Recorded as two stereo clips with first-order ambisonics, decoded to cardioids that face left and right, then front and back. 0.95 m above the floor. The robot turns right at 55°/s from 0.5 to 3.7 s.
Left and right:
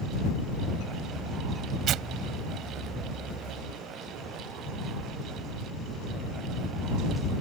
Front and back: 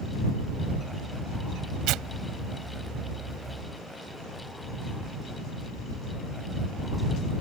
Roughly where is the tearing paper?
Behind right.